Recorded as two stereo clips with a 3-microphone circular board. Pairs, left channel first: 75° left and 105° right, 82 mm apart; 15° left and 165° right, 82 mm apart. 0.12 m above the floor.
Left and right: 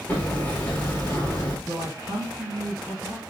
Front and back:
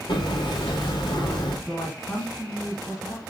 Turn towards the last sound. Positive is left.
turn(degrees=-60)